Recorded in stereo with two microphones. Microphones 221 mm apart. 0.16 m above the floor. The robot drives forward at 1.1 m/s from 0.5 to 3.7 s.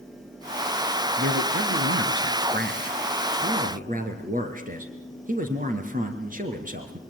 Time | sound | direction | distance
1.2 | a man speaking | 45° right (ahead or behind) | 2.5 m